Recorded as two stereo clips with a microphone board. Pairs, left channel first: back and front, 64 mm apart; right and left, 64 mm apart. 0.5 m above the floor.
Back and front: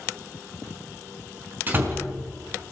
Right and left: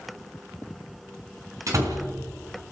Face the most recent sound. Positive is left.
turn(degrees=55)